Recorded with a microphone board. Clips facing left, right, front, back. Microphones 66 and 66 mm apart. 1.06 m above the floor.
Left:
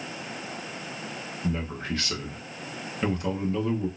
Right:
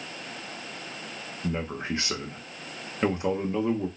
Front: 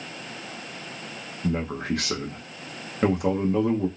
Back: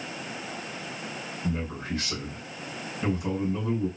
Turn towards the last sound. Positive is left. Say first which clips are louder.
# even, front 6 dB
turn(degrees=-20)